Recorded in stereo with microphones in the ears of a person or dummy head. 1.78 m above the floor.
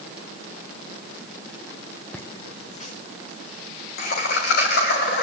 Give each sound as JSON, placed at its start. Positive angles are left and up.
{"t": 2.1, "sound": "laughter", "side_deg": 5, "distance_m": 0.6}